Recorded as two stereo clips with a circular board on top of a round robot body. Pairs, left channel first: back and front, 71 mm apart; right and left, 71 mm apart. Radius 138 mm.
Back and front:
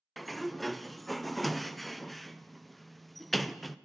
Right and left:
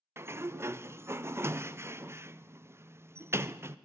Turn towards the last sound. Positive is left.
turn(degrees=90)